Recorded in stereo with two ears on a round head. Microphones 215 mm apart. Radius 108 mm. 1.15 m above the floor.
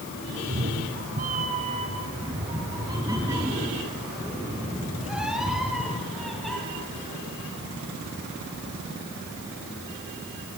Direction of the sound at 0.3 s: 45° right (ahead or behind).